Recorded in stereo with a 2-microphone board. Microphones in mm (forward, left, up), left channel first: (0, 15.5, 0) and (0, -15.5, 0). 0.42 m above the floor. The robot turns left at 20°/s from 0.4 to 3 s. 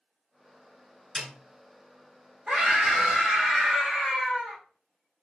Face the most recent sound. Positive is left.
turn(degrees=-30)  # may be behind; listen again after turning